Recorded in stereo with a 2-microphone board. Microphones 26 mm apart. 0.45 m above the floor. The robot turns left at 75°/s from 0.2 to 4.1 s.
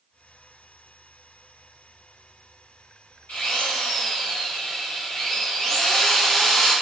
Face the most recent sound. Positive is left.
turn(degrees=30)